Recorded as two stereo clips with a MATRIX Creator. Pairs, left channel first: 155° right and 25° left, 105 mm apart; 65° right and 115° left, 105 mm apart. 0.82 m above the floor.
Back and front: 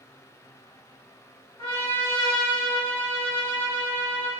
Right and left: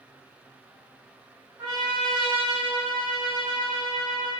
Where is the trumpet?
160° left, 1.2 m.